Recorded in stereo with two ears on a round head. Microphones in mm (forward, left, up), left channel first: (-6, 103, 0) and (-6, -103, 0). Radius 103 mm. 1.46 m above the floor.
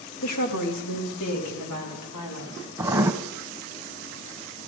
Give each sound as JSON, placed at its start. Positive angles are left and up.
{"t": 0.2, "sound": "a woman speaking", "side_deg": 80, "distance_m": 2.0}
{"t": 2.8, "sound": "writing", "side_deg": -10, "distance_m": 0.8}